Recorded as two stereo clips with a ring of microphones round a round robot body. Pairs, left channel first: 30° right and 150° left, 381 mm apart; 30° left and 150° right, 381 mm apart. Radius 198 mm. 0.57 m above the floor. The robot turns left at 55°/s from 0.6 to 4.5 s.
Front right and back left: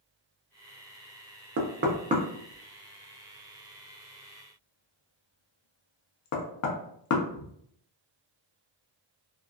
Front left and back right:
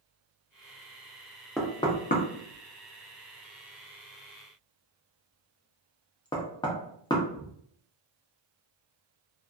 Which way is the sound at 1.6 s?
120° left.